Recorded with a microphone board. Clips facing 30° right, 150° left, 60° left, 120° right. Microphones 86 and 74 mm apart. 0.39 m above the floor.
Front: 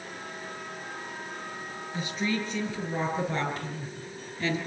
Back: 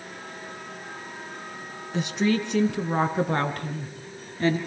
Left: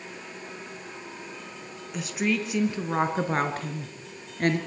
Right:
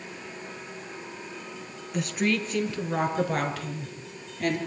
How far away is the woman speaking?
About 3.5 m.